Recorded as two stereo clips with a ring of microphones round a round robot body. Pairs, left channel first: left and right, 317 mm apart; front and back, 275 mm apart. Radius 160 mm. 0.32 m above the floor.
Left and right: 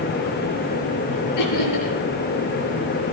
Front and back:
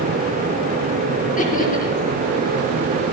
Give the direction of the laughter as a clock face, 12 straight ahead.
10 o'clock.